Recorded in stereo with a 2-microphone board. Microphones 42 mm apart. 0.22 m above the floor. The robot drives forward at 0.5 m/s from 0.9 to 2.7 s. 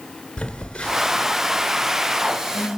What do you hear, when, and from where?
0.4 s a phone buzzing: 20° left (ahead or behind), 3 m; by 2.7 s 30° left (ahead or behind), 2 m